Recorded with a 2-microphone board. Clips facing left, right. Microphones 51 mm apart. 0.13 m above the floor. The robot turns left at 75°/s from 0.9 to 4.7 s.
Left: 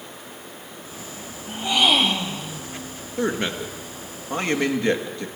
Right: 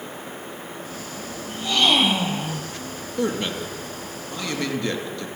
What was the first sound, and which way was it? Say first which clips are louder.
A gasp: left 1 dB; 40° left.